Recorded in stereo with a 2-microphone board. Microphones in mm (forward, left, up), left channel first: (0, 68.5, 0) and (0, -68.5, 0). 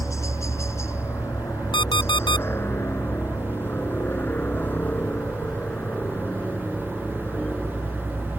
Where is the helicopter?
20° left (ahead or behind); by 8.4 s 5° left (ahead or behind).